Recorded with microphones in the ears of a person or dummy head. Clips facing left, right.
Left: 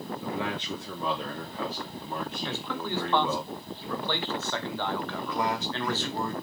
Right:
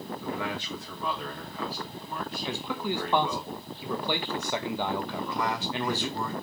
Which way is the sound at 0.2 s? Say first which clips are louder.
Left 1 dB; 20° left (ahead or behind).